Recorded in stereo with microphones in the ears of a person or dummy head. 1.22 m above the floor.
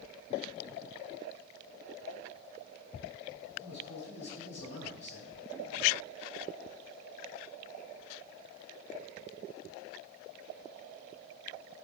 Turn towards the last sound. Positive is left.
turn(degrees=55)  # may be behind; listen again after turning